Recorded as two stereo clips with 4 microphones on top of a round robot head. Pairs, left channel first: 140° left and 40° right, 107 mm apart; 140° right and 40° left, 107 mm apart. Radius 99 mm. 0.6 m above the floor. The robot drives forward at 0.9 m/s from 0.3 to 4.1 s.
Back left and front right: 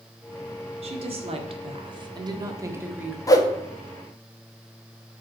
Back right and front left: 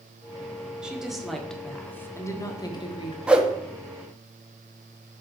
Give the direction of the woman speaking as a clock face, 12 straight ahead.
1 o'clock.